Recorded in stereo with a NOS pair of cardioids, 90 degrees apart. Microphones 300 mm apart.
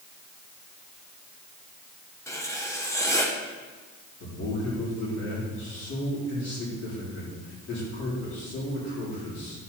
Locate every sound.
2.3 s writing: 10° left, 1.4 m
4.2 s a man speaking: 50° left, 4 m